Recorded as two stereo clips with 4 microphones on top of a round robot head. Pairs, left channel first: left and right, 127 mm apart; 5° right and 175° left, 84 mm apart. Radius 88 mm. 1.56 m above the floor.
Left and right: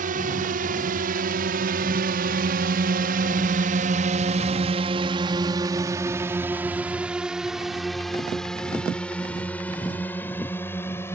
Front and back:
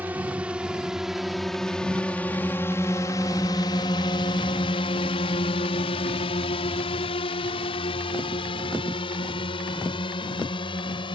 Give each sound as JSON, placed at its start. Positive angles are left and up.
{"t": 0.0, "sound": "a drone", "azimuth_deg": -105}